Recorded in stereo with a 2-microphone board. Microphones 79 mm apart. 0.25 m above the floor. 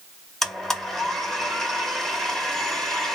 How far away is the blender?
About 1.4 m.